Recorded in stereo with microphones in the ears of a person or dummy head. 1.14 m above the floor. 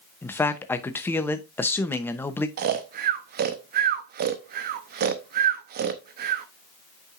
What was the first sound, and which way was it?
A man speaking, 15° left (ahead or behind).